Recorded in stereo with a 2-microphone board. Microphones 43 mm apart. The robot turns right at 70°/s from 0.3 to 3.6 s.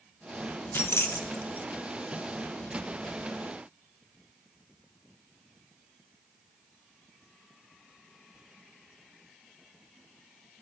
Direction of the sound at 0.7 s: 60° left (ahead or behind).